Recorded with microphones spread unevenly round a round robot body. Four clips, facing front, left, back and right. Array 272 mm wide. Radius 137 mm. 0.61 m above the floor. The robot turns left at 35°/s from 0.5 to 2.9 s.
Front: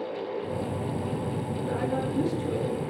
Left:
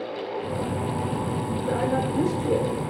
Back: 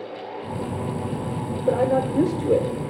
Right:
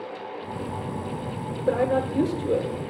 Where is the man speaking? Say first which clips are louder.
Right 3 dB, back 10 dB; 145° right, 1.8 m; by 2.7 s straight behind, 1.8 m.